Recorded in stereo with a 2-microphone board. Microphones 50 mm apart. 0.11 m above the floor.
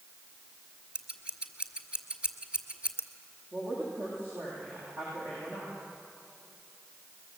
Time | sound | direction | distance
0.9 | scissors | 20° right (ahead or behind) | 1.8 m
3.5 | a woman speaking | 55° right (ahead or behind) | 9.5 m